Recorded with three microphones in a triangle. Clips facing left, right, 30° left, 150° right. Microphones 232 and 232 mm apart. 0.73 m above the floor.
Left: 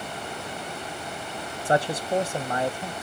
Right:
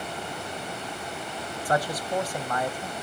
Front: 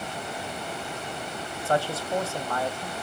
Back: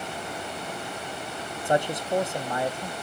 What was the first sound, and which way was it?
A man speaking, 145° left.